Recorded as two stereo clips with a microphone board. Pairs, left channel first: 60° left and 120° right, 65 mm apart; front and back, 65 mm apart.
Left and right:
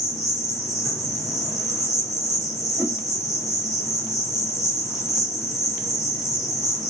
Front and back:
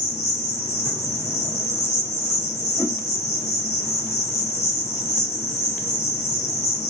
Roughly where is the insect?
Ahead right.